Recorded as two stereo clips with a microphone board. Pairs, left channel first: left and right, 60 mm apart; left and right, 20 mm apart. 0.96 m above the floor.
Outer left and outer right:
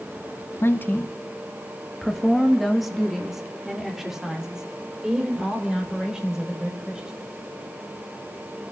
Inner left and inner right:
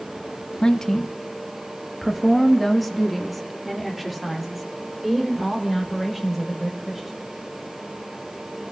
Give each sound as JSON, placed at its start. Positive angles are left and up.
{"t": 0.6, "sound": "a woman speaking", "side_deg": 45, "distance_m": 0.6}